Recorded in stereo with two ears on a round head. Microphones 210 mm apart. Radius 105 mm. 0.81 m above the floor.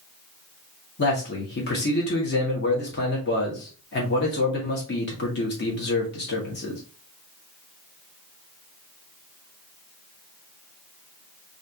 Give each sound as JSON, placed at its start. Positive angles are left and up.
{"t": 1.0, "sound": "a man speaking", "side_deg": 45, "distance_m": 1.3}